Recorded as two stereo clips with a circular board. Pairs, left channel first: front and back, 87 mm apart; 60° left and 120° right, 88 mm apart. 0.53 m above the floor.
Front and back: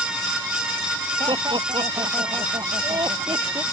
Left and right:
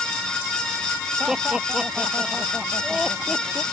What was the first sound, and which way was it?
Laughter, 155° left.